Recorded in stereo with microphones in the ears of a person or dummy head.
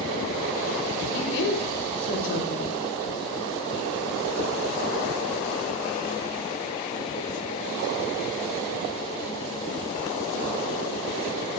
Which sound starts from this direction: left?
A woman speaking, at 1.1 s.